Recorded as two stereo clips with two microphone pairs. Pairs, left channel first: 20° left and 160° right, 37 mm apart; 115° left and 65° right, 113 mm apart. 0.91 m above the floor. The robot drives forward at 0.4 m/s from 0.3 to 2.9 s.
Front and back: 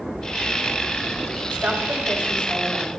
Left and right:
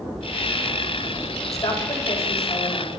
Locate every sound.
1.5 s a woman speaking: 175° left, 5 m